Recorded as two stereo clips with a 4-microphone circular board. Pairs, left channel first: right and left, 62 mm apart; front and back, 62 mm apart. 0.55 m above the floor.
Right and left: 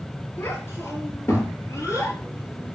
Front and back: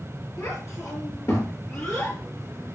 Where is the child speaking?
35° right, 5.5 m; by 2.8 s 50° right, 5 m.